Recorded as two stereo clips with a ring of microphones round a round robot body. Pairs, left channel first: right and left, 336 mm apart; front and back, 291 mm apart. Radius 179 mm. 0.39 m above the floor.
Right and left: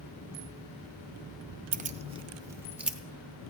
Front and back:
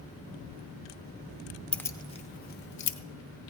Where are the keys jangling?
80° left, 0.8 m; by 3.0 s straight ahead, 1.0 m.